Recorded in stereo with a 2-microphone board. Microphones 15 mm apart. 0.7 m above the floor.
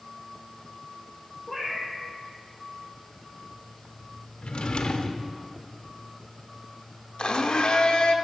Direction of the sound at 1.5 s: 5° right (ahead or behind).